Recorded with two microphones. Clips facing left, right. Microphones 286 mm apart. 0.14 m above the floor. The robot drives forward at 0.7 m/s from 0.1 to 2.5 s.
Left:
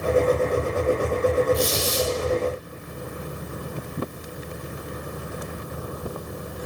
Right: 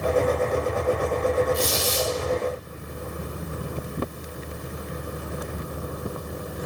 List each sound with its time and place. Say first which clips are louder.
1.5 s a squeak: left 2 dB; 30° right (ahead or behind), 2.5 m; by 2.1 s 25° right (ahead or behind), 2.5 m